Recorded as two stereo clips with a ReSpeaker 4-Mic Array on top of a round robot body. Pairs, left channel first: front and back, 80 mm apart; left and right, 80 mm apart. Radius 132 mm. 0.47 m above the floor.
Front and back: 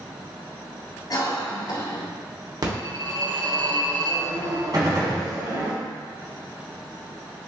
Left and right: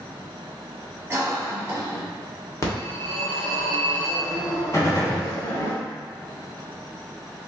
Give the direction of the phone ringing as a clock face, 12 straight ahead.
7 o'clock.